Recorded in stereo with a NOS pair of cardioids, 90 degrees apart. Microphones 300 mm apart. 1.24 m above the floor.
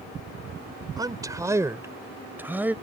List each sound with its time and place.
1.0 s a man speaking: 15° right; by 2.7 s 5° right